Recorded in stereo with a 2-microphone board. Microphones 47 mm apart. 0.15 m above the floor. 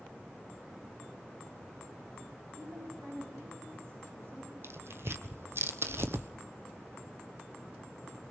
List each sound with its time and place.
2.6 s a woman speaking: 65° right (ahead or behind), 9.5 m
4.6 s tearing paper: 65° right (ahead or behind), 1.1 m